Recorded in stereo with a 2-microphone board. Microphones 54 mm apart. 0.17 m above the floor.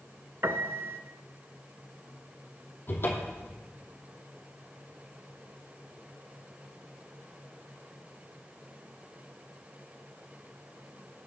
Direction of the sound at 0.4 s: 50° right (ahead or behind).